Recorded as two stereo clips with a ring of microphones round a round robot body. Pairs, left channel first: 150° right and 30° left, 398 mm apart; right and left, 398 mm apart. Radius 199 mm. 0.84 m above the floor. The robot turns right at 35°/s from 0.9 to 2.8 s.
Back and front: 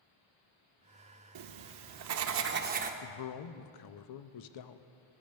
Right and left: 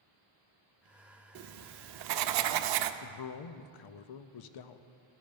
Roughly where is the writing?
Ahead left.